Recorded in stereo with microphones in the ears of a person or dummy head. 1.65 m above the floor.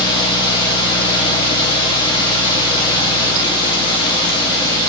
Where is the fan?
25° left (ahead or behind), 0.9 m.